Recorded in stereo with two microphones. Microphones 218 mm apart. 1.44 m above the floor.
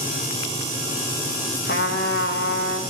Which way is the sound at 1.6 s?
50° left (ahead or behind).